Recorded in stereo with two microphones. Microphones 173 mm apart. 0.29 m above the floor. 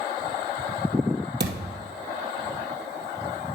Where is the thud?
75° right (ahead or behind), 2 m.